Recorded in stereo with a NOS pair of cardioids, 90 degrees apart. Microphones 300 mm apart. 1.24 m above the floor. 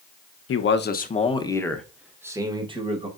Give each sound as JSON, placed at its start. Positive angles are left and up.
{"t": 0.5, "sound": "a man speaking", "azimuth_deg": 45, "distance_m": 0.9}